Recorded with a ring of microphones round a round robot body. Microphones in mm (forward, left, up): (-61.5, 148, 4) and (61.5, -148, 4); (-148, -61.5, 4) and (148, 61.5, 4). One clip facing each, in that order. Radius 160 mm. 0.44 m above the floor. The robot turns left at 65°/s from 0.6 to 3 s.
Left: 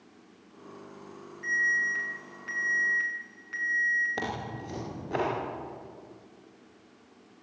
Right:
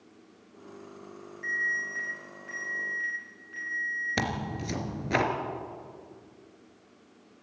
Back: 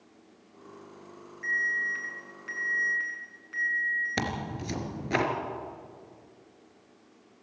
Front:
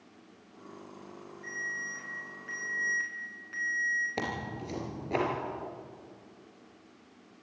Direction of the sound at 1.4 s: 155° right.